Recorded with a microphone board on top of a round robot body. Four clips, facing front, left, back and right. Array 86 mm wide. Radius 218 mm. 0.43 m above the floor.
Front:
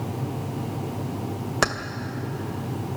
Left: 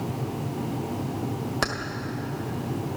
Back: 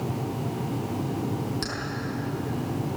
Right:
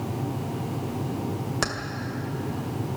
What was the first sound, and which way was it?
Keys jangling, 10° left.